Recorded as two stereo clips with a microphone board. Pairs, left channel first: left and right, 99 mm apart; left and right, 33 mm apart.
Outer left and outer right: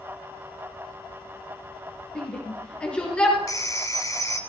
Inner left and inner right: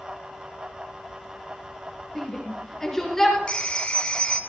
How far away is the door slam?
No door slam in this recording.